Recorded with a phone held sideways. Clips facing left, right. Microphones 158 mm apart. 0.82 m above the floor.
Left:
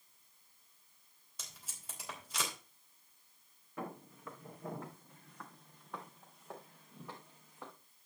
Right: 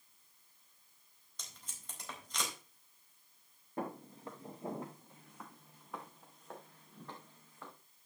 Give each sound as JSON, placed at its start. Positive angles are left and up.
{"t": 1.4, "sound": "tape being pulled", "side_deg": 10, "distance_m": 4.0}
{"t": 3.8, "sound": "footsteps", "side_deg": -35, "distance_m": 3.5}